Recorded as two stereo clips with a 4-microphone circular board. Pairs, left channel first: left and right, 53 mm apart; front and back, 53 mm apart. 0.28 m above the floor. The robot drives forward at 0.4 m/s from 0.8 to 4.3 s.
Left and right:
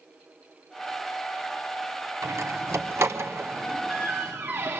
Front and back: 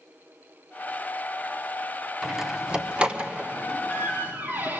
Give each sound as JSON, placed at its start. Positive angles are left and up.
{"t": 2.2, "sound": "a door slam", "azimuth_deg": -100, "distance_m": 1.4}